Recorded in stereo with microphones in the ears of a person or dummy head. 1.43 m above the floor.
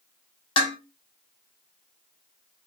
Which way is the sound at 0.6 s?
30° left (ahead or behind).